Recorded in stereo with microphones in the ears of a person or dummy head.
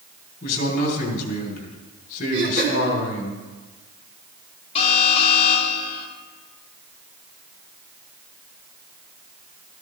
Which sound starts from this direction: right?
Throat clearing, at 2.3 s.